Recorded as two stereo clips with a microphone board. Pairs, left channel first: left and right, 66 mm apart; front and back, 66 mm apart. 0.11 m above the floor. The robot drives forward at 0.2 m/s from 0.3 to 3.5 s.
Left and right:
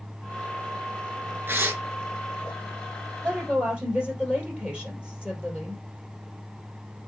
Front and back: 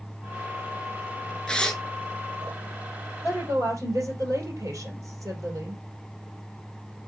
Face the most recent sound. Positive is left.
turn(degrees=-160)